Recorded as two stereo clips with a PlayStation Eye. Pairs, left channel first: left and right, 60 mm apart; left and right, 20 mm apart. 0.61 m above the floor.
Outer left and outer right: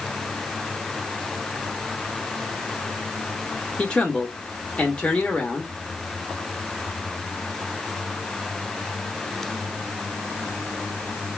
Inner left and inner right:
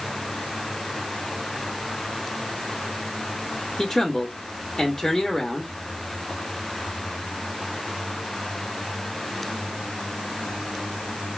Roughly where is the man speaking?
Centre.